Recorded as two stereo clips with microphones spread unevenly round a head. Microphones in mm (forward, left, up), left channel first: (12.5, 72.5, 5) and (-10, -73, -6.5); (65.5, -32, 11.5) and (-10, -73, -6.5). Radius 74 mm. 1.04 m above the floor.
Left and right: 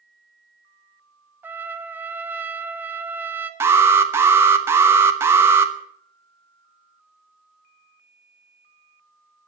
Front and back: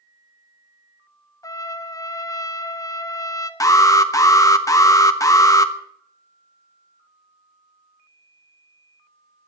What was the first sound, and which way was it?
A trumpet, 25° right.